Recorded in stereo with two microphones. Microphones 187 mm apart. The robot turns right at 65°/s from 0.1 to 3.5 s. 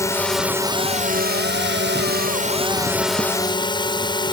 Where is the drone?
165° left; by 4.3 s 25° left.